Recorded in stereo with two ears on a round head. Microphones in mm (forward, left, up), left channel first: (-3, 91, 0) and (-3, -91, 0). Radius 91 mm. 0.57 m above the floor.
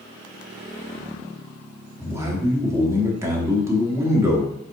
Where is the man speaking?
15° right (ahead or behind), 1.0 m.